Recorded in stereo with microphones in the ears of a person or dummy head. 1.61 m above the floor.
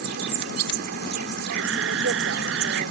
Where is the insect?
70° right (ahead or behind).